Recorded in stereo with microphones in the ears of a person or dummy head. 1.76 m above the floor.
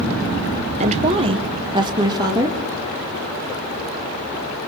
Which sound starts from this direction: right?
A woman speaking, at 0.8 s.